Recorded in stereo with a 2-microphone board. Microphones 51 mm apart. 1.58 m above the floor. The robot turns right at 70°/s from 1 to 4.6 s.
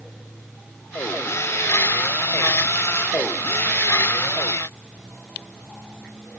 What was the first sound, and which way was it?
Only background noise.